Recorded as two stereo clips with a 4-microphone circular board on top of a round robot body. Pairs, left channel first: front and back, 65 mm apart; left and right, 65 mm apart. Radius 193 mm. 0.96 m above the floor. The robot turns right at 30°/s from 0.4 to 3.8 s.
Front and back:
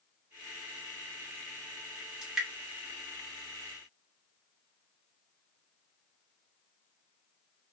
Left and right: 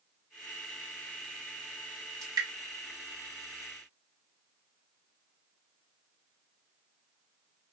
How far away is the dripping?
About 1.5 m.